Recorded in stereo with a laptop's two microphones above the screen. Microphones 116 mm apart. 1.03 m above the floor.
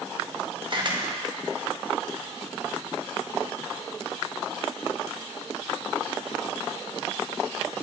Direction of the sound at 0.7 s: 45° right (ahead or behind).